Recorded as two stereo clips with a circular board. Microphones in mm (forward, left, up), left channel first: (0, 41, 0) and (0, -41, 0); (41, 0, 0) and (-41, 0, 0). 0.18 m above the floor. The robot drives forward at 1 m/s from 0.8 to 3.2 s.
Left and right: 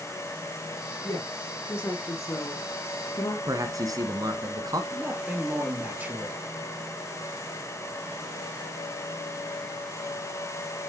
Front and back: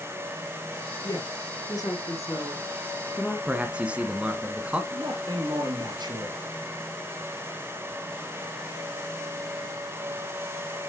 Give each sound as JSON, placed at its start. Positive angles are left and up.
{"t": 1.0, "sound": "a woman speaking", "azimuth_deg": 30, "distance_m": 3.5}
{"t": 3.5, "sound": "a man speaking", "azimuth_deg": -110, "distance_m": 1.6}
{"t": 4.9, "sound": "a man speaking", "azimuth_deg": -160, "distance_m": 3.0}